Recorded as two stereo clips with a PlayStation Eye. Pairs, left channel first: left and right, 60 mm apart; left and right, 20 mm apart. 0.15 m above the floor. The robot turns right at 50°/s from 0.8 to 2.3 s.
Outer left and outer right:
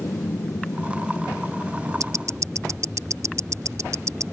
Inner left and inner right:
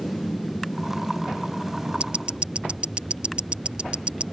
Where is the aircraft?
110° left; by 4.3 s 175° right.